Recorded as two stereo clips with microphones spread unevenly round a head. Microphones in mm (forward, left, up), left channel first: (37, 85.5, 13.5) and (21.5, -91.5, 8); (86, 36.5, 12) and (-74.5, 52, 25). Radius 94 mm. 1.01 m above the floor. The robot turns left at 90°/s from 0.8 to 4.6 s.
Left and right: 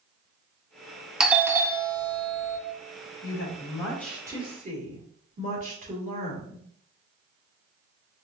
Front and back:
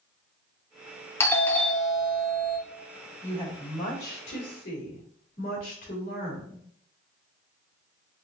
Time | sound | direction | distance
1.2 | a doorbell | 20° right | 0.7 m
3.2 | a woman speaking | 75° left | 2.5 m